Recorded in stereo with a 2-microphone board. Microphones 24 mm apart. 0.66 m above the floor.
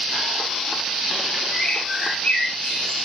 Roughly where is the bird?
Left.